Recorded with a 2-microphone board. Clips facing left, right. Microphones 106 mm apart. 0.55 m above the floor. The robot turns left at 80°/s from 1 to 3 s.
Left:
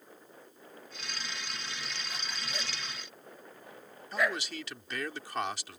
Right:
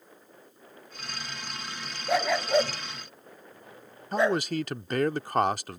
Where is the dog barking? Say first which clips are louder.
Right 23 dB; 75° right (ahead or behind); by 4.4 s 30° right (ahead or behind).